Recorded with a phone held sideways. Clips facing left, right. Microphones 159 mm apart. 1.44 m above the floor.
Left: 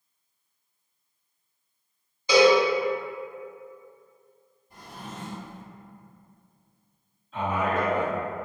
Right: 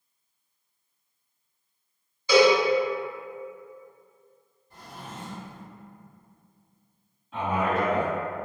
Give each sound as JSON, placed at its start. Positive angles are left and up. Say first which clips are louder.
{"t": 2.3, "sound": "a cowbell", "louder": "even", "side_deg": 15, "distance_m": 0.9}
{"t": 4.7, "sound": "a drawer", "louder": "left 1 dB", "side_deg": 15, "distance_m": 1.6}
{"t": 7.3, "sound": "a man speaking", "louder": "right 1 dB", "side_deg": -75, "distance_m": 1.6}